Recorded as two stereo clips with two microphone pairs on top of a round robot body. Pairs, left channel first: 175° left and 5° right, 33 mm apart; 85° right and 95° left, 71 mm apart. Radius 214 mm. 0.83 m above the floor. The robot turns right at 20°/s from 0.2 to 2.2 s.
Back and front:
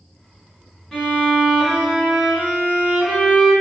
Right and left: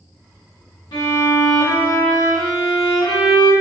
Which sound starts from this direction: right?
A violin, at 0.9 s.